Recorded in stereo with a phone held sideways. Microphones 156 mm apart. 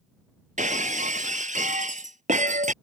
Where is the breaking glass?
55° right (ahead or behind).